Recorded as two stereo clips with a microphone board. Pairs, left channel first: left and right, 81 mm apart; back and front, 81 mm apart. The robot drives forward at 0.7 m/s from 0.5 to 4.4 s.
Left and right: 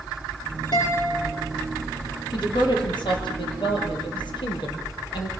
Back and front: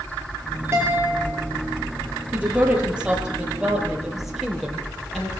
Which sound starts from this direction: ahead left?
A guitar, at 0.7 s.